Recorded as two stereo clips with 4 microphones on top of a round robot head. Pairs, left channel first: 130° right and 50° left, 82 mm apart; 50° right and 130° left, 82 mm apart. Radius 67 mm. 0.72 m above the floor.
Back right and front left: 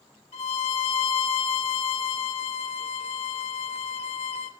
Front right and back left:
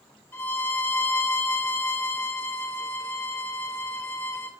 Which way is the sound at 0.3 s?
115° right.